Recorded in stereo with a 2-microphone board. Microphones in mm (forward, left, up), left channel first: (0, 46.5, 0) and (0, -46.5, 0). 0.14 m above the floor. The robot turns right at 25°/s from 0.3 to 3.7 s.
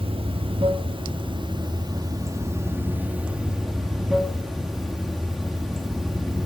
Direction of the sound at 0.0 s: 90° right.